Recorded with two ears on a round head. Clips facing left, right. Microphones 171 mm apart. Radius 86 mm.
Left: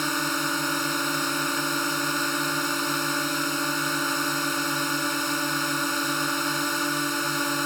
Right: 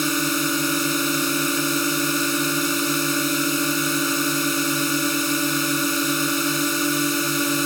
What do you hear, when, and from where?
0.0 s a drone: 35° right (ahead or behind)